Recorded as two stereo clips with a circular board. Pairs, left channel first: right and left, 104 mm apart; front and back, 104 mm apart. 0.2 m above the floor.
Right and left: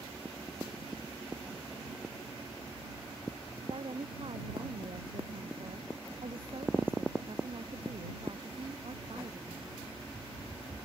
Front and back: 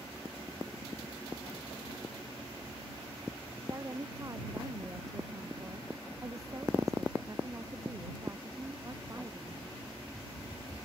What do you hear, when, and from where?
3.6 s a woman speaking: 120° left